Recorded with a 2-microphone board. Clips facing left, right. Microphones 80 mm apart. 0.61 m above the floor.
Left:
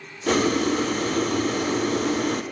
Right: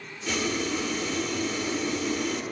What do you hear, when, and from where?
0.3 s boiling: 50° left (ahead or behind), 0.5 m